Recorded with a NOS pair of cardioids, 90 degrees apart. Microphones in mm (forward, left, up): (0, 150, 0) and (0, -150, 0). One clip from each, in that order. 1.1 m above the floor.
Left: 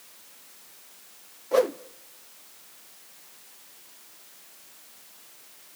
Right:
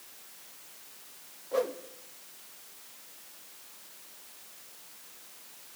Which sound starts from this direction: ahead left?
A whoosh, at 1.5 s.